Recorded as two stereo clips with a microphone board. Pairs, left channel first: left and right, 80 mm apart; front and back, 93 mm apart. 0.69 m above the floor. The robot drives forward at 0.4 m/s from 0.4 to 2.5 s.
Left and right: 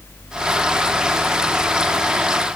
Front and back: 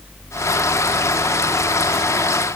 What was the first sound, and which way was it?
Only background noise.